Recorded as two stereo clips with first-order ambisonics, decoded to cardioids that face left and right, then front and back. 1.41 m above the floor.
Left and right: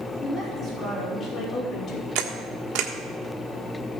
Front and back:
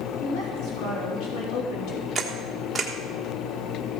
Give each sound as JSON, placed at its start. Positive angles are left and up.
{"t": 0.2, "sound": "a woman speaking", "azimuth_deg": 10, "distance_m": 4.5}
{"t": 2.1, "sound": "a camera shutter", "azimuth_deg": -95, "distance_m": 1.4}